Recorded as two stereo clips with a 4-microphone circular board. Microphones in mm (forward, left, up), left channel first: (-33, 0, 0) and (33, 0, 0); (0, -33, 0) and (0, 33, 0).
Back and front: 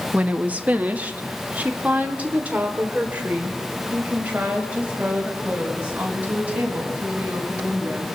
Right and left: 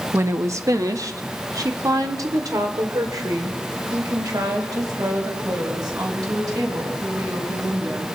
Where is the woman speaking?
60° left, 1.0 m; by 8.1 s 65° left, 8.5 m.